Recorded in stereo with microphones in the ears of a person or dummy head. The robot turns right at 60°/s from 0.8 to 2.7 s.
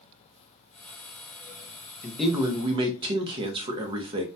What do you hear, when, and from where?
2.0 s a man speaking: 165° left, 0.6 m; by 4.3 s 155° right, 0.6 m